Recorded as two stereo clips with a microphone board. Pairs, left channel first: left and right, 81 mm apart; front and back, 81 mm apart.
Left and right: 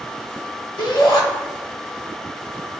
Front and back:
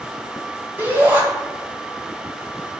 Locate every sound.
0.8 s a shout: 115° left, 2 m